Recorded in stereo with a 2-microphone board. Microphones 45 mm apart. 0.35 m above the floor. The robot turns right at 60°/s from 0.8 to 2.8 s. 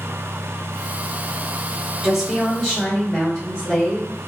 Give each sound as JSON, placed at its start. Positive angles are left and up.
{"t": 2.0, "sound": "a woman speaking", "side_deg": -20, "distance_m": 0.9}